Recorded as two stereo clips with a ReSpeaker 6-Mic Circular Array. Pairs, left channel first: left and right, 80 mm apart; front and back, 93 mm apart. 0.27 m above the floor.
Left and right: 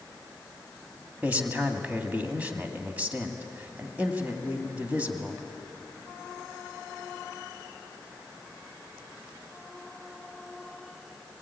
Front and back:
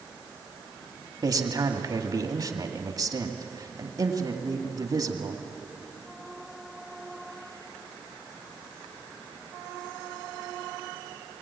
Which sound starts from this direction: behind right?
A man speaking, at 1.2 s.